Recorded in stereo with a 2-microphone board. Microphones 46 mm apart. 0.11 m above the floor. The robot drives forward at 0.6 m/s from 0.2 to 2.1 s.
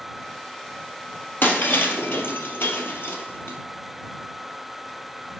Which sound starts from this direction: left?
Breaking glass, at 1.4 s.